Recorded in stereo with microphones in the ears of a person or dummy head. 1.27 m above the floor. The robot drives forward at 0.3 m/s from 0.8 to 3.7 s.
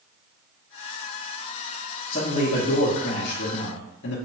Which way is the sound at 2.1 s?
45° left (ahead or behind).